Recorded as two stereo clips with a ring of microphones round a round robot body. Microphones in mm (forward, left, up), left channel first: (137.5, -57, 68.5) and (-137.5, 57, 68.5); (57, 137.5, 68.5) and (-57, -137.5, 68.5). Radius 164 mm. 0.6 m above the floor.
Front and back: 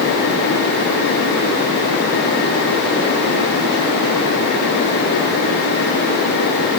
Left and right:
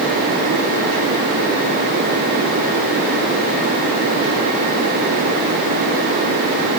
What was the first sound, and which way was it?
Only background noise.